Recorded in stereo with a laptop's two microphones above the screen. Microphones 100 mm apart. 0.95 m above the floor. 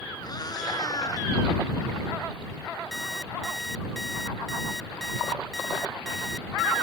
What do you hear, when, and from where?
0.2 s a cat meowing: 45° left (ahead or behind); by 1.3 s 40° left (ahead or behind)
2.9 s an alarm clock: centre (ahead or behind)